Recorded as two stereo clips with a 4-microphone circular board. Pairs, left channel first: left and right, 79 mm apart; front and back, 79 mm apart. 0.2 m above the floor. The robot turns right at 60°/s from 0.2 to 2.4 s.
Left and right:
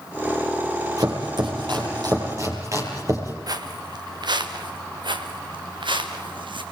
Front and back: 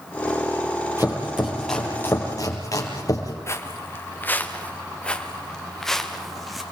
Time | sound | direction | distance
1.0 | chopping | 130° right | 6 m
3.5 | footsteps | 55° right | 2.5 m